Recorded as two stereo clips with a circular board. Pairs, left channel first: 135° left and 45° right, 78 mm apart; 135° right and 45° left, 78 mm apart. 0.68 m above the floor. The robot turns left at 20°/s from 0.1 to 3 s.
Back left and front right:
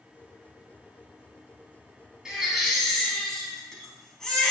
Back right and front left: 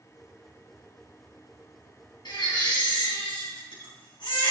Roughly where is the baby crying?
Behind right.